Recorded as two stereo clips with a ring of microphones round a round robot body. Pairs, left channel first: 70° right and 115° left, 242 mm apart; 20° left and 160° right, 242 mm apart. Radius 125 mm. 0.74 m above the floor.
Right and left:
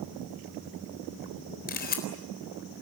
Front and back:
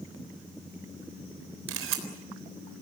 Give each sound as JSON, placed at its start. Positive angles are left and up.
{"t": 1.7, "sound": "a camera shutter", "azimuth_deg": -120, "distance_m": 3.5}